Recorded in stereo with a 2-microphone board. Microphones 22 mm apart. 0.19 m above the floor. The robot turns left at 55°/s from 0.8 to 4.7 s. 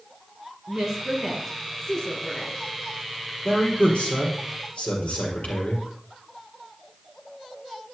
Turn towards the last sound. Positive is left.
turn(degrees=75)